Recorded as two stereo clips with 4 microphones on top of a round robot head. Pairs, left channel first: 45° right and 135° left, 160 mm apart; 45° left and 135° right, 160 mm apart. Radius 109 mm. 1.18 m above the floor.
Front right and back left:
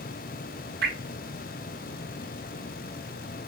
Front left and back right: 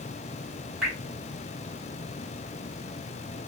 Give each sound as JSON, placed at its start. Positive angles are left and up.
{"t": 0.8, "sound": "dripping", "azimuth_deg": 140, "distance_m": 1.5}